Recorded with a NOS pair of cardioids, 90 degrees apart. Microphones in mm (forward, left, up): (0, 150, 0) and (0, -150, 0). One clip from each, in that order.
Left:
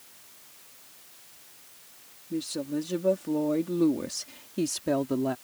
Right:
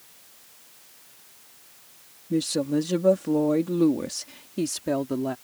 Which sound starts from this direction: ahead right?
A woman speaking, at 2.3 s.